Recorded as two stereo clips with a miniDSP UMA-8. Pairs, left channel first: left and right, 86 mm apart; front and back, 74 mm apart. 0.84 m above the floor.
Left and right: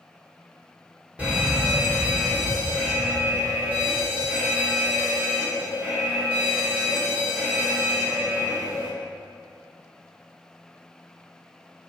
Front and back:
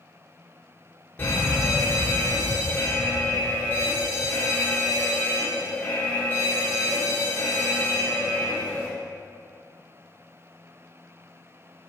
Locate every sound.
1.2 s a fire alarm: 35° right, 2 m